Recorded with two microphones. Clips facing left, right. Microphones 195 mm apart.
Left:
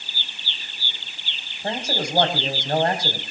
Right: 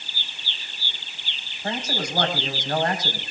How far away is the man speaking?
About 4 m.